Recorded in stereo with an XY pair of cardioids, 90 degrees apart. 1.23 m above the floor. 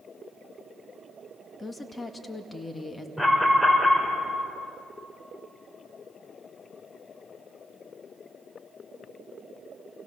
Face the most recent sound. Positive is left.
turn(degrees=15)